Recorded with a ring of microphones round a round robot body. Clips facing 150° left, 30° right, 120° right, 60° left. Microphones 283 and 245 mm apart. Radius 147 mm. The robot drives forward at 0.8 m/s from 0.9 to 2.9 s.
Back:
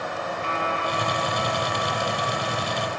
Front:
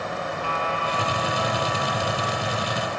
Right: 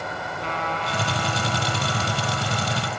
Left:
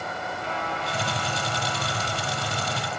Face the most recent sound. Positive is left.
turn(degrees=-150)